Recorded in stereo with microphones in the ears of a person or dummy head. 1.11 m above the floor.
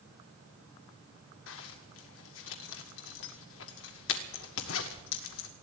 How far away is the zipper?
About 1.5 m.